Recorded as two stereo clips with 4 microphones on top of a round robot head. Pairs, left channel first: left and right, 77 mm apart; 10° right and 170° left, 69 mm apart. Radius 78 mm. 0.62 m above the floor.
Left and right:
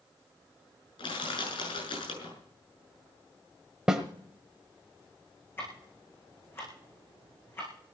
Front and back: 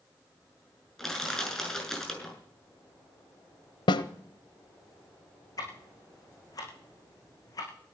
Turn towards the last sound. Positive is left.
turn(degrees=25)